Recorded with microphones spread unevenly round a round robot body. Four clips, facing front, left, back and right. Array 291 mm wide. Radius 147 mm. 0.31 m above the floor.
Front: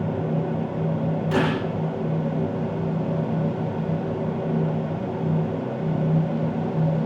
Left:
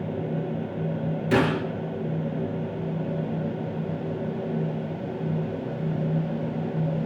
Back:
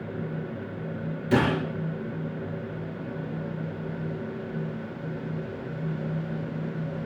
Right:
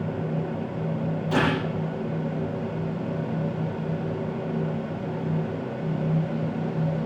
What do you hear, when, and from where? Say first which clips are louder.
1.3 s a gunshot: left 2 dB, back 1 dB; 125° left, 7.5 m